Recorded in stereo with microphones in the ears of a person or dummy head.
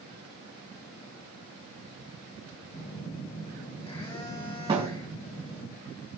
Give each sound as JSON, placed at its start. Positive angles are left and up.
{"t": 2.7, "sound": "a phone buzzing", "side_deg": 30, "distance_m": 2.5}
{"t": 4.7, "sound": "a thud", "side_deg": -30, "distance_m": 3.0}